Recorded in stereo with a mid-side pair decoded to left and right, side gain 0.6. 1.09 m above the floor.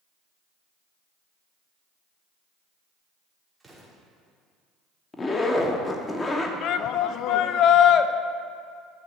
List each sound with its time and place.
3.6 s an explosion: 10° right, 3.5 m
5.1 s a zipper: 25° left, 1.3 m
6.6 s a shout: 60° left, 0.7 m